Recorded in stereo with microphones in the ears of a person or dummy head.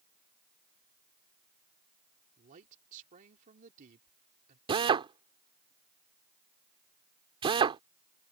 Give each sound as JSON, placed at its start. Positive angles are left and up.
{"t": 2.4, "sound": "a man speaking", "side_deg": -45}
{"t": 4.7, "sound": "a drill", "side_deg": -25}